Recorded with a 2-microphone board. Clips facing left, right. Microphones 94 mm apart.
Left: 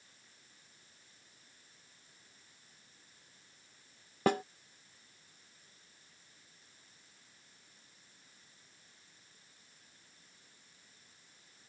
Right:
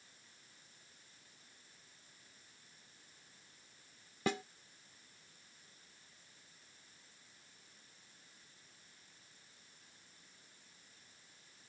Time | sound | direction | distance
4.3 | a snare drum | 55° left (ahead or behind) | ?